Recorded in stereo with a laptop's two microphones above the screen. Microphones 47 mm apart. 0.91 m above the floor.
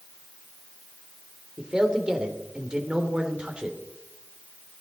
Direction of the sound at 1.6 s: 15° right (ahead or behind).